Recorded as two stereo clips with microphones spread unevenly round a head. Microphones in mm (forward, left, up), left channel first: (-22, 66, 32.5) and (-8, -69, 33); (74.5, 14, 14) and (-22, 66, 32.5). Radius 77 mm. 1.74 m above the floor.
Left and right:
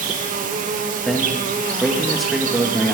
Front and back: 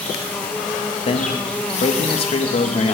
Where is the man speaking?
5° left, 2.5 m.